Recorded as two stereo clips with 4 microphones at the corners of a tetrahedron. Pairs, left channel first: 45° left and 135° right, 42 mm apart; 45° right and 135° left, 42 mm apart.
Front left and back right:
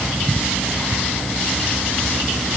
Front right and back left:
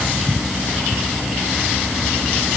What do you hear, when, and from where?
Only background noise.